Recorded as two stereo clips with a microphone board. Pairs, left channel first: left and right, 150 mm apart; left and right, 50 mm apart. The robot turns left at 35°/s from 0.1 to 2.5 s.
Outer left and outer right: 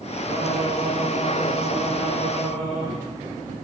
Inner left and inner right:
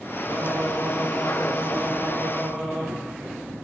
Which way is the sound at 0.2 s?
160° right.